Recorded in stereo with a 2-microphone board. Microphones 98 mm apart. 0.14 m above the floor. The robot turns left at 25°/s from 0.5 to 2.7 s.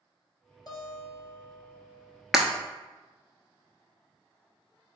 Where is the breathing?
I don't hear breathing.